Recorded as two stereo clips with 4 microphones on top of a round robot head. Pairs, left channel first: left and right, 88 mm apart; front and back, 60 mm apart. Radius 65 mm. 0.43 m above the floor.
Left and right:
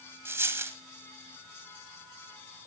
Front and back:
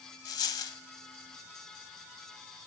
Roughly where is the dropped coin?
Ahead right.